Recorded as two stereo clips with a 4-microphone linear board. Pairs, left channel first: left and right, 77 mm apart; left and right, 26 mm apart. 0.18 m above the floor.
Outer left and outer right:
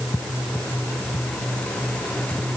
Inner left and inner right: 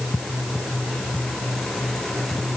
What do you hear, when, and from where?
Only background noise.